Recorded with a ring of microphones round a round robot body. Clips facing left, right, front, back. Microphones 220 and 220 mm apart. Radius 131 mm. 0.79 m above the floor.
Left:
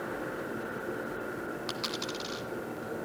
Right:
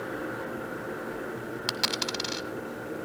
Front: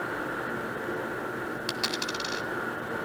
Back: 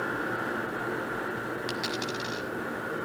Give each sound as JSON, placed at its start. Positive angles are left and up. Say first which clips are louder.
{"t": 1.7, "sound": "a dropped coin", "louder": "right 2 dB, back 1 dB", "azimuth_deg": -85, "distance_m": 1.8}